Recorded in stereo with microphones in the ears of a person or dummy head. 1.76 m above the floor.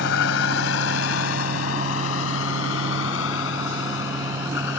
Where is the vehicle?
65° left (ahead or behind); by 4.8 s 70° left (ahead or behind).